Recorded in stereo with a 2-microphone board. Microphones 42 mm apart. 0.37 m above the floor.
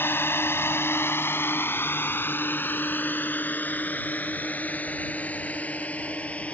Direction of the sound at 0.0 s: 60° left (ahead or behind).